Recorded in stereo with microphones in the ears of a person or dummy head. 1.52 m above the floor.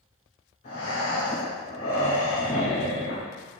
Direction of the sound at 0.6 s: 40° left (ahead or behind).